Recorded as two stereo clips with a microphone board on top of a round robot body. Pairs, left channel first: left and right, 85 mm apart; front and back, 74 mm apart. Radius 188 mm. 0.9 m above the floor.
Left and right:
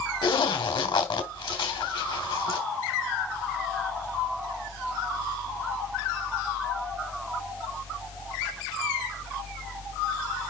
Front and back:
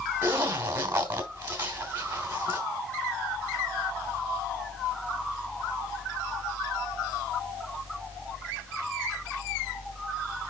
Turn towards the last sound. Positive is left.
turn(degrees=115)